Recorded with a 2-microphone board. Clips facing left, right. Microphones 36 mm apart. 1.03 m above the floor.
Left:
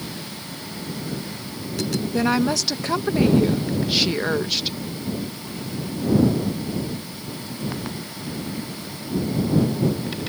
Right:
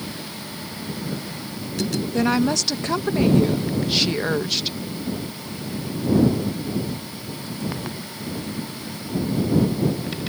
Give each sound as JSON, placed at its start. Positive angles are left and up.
{"t": 2.1, "sound": "a woman speaking", "side_deg": 5}